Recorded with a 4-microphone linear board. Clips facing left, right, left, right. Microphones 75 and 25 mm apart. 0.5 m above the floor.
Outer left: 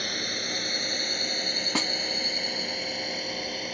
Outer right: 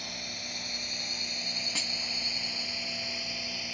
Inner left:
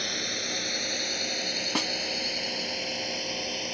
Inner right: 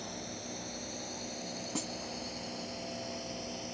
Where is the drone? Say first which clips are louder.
Outer left 9 dB, inner left 12 dB; 65° left (ahead or behind); by 3.7 s 55° left (ahead or behind).